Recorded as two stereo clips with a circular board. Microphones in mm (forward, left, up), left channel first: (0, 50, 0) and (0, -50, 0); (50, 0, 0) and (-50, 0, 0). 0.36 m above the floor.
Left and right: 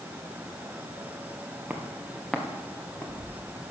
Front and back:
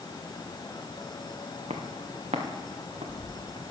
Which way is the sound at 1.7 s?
165° right.